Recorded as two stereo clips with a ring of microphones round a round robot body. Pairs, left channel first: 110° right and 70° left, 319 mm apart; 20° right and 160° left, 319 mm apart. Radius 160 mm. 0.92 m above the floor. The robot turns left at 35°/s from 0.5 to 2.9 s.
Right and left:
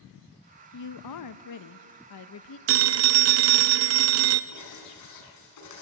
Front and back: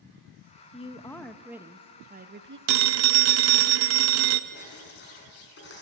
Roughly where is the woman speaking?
Right.